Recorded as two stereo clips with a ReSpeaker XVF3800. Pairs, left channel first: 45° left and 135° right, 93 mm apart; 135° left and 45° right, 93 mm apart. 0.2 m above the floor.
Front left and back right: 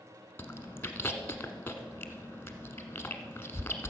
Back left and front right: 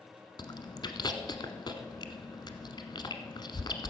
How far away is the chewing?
About 1.0 m.